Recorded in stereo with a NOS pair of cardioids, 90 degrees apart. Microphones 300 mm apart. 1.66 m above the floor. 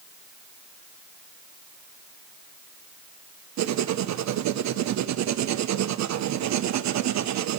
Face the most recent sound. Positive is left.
turn(degrees=-65)